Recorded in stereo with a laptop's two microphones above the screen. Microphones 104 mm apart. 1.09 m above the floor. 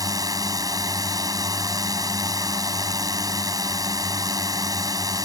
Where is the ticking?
No ticking in this recording.